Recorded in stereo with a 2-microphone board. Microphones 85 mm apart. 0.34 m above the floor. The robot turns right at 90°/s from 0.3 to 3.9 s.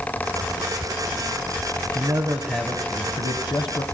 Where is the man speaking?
65° right, 2.5 m; by 3.8 s 115° left, 2.5 m.